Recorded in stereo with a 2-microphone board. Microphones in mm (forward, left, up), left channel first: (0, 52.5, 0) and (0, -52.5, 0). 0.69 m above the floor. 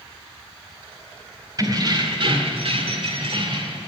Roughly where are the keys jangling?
Right.